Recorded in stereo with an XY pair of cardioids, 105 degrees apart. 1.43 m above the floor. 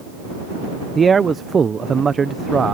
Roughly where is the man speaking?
Ahead right.